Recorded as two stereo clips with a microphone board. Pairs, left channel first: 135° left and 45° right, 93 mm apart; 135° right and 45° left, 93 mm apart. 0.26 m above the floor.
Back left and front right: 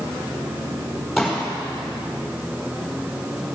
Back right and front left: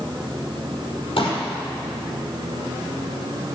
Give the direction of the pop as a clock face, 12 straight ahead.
4 o'clock.